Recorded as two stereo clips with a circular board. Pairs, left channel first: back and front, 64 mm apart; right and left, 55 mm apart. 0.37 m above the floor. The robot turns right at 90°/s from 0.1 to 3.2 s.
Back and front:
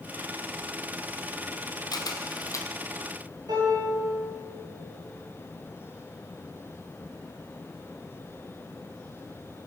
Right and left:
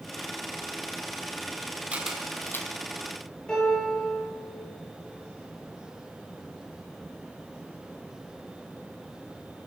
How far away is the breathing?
I don't hear breathing.